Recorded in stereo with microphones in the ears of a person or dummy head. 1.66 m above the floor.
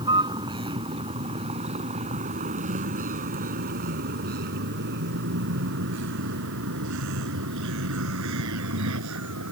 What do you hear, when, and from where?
0.0 s a vehicle: 25° right (ahead or behind); by 9.5 s 80° right